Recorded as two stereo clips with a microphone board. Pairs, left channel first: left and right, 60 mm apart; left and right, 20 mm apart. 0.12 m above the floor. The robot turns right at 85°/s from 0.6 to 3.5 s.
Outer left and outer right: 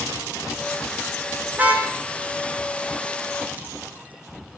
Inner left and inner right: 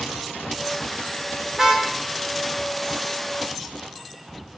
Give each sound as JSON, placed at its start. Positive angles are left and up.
{"t": 1.5, "sound": "a car horn", "side_deg": -40, "distance_m": 3.0}